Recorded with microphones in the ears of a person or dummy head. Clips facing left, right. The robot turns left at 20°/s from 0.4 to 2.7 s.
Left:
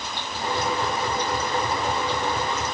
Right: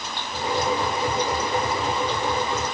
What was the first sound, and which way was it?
Only background noise.